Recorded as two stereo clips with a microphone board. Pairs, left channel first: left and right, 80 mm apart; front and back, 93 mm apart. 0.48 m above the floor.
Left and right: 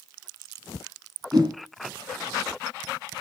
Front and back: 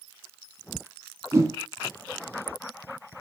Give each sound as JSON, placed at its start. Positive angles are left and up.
{"t": 1.3, "sound": "a whoosh", "azimuth_deg": -120, "distance_m": 3.5}